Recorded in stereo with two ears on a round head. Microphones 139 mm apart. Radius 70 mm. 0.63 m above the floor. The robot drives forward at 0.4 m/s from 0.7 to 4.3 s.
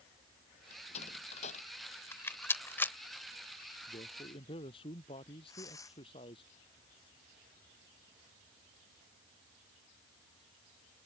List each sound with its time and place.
0.7 s a door slam: 40° left (ahead or behind)
2.1 s a rattle: 15° left (ahead or behind)
3.9 s a man speaking: 30° left (ahead or behind); by 6.5 s 35° left (ahead or behind)
5.5 s tearing paper: 20° left (ahead or behind)